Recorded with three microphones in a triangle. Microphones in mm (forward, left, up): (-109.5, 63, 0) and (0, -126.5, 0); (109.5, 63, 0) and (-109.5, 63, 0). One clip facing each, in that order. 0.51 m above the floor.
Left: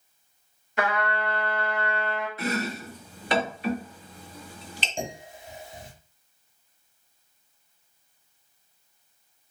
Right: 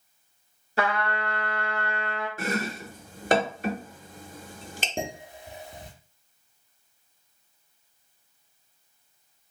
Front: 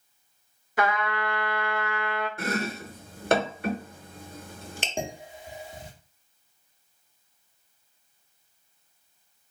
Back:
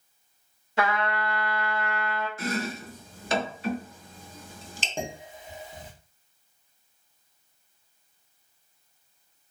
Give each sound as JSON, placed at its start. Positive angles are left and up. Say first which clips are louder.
{"t": 0.8, "sound": "a trumpet", "louder": "even, even", "azimuth_deg": -115, "distance_m": 1.7}
{"t": 2.4, "sound": "chopping", "louder": "even, front 1 dB", "azimuth_deg": -25, "distance_m": 0.7}
{"t": 5.0, "sound": "dishes clattering", "louder": "right 1 dB, even", "azimuth_deg": -75, "distance_m": 1.2}